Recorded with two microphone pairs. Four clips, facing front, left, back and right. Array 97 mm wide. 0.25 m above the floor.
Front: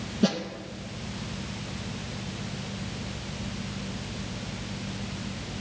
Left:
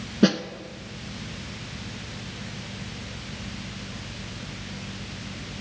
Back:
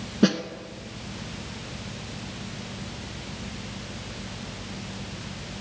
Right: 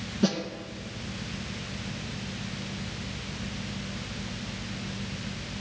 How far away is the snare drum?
About 0.8 m.